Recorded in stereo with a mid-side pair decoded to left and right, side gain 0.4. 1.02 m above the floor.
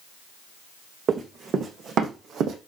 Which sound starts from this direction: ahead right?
Running footsteps, at 1.1 s.